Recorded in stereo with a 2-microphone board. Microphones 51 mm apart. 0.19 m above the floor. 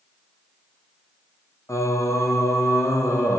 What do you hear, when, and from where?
1.7 s singing: 80° left, 3.5 m